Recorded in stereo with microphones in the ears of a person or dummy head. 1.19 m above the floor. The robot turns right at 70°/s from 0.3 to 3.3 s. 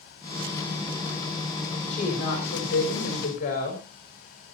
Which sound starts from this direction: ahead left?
A woman speaking, at 1.9 s.